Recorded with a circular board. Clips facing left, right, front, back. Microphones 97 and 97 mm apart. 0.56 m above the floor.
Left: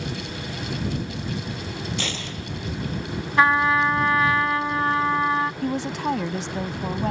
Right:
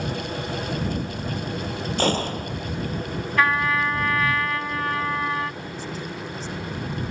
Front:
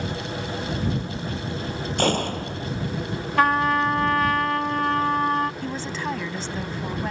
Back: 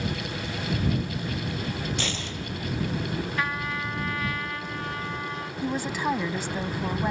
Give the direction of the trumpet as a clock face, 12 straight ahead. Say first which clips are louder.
Left 3 dB, front 11 dB; 11 o'clock.